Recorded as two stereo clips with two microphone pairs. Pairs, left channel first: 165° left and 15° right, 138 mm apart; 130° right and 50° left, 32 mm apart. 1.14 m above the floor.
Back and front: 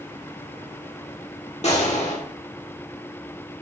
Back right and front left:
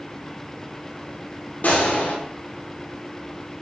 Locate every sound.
1.6 s a gunshot: 160° right, 2.5 m